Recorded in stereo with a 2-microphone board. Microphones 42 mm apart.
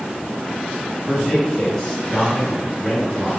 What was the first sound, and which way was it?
A man speaking, 25° left (ahead or behind).